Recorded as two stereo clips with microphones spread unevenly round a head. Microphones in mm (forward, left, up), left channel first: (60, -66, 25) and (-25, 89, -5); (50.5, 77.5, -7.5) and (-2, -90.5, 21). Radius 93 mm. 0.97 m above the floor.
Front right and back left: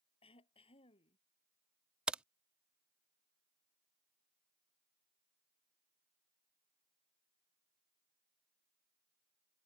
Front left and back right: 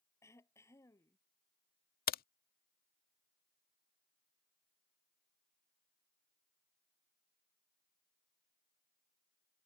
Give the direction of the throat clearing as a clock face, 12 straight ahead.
12 o'clock.